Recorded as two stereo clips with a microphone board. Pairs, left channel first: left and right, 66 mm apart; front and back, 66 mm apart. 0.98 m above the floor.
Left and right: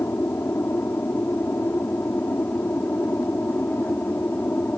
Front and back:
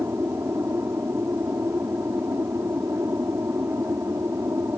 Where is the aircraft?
140° left; by 4.8 s 145° left.